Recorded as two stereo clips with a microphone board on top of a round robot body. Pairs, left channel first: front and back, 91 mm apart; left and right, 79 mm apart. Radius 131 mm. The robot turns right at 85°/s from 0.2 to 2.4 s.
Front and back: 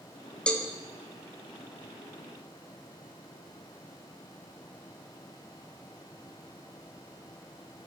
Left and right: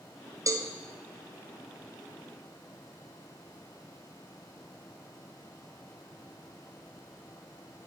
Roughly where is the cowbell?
Right.